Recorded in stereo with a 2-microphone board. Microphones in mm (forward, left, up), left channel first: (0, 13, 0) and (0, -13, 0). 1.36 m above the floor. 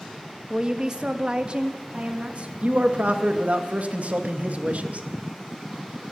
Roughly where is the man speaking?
Right.